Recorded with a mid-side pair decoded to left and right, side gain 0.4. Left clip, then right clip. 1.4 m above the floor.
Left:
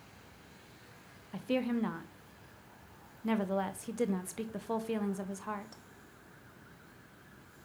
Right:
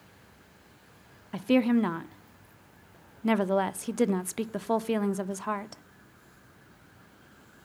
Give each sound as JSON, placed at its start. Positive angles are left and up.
{"t": 1.3, "sound": "a woman speaking", "azimuth_deg": -55, "distance_m": 0.9}